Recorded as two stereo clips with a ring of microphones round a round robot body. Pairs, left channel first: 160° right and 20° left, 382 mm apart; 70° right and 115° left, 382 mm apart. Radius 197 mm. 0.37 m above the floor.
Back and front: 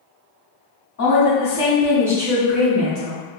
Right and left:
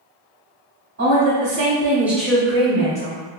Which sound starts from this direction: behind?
A woman speaking, at 1.0 s.